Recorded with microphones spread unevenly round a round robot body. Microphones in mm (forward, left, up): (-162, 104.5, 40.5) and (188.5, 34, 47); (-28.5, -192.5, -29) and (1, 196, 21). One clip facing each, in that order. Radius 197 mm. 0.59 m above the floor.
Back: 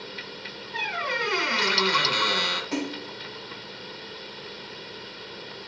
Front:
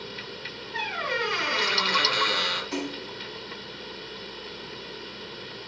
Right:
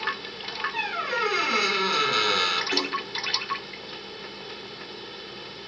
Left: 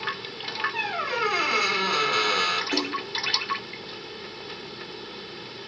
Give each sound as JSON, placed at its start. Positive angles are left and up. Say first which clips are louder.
{"t": 0.7, "sound": "a squeak", "louder": "front 1 dB, left 1 dB", "azimuth_deg": -155, "distance_m": 2.5}
{"t": 2.7, "sound": "a splash", "louder": "back 2 dB, left 2 dB", "azimuth_deg": -155, "distance_m": 3.0}